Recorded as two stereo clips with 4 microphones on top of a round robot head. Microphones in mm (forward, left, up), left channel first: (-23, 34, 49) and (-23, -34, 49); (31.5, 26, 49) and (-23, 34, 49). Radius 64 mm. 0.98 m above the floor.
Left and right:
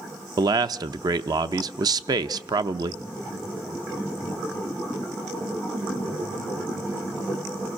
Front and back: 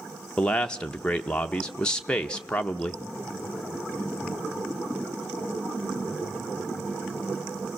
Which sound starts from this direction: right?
A man speaking, at 0.4 s.